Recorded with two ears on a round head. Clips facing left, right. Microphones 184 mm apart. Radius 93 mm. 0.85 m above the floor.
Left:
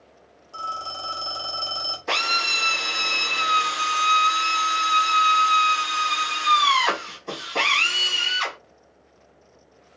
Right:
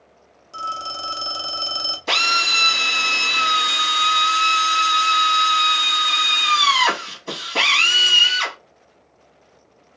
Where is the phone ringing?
20° right (ahead or behind), 0.9 m.